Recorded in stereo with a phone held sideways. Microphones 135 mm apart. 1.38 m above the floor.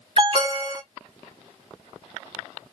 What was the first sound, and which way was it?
An alarm, 40° right (ahead or behind).